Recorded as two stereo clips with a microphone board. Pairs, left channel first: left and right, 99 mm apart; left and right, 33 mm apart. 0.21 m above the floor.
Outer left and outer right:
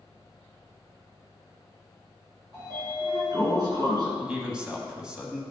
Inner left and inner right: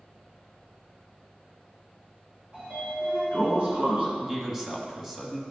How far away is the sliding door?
About 2 m.